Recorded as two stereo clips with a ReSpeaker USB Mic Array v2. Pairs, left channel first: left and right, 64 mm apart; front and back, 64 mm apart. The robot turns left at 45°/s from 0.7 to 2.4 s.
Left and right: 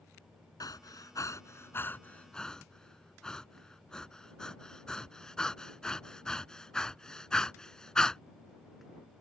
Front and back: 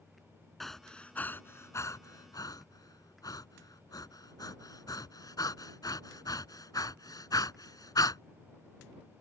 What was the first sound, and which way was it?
Breathing, 90° left.